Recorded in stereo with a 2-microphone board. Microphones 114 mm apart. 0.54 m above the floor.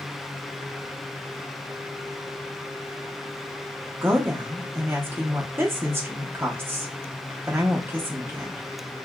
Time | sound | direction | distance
4.0 | a woman speaking | 20° right (ahead or behind) | 0.7 m